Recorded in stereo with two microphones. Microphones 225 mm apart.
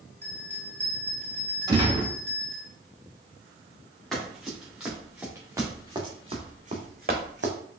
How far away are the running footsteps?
About 2.5 m.